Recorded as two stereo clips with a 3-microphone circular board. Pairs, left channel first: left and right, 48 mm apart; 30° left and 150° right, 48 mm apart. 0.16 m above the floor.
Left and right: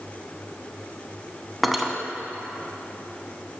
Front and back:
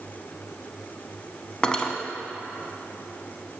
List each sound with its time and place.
1.6 s cutlery clinking: 5° right, 0.7 m